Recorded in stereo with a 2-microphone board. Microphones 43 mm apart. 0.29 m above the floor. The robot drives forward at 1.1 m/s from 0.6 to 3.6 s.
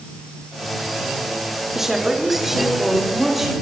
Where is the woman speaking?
10° right (ahead or behind), 3.5 m; by 3.5 s 5° right (ahead or behind), 5.5 m.